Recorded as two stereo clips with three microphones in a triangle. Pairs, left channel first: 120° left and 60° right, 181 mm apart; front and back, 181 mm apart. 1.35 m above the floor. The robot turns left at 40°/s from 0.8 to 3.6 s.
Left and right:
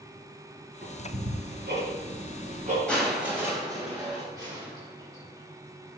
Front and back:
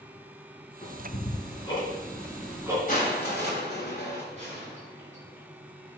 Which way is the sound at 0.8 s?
30° right.